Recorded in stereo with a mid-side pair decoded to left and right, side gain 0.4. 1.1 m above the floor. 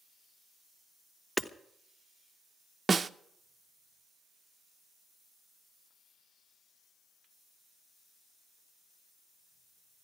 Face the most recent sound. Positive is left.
turn(degrees=-35)